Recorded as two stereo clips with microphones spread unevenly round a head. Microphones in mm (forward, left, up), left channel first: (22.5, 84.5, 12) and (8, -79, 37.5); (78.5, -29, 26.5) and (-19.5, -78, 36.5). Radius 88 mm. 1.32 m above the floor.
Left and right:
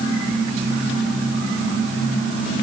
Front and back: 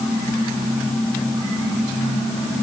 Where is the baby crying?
I don't hear a baby crying.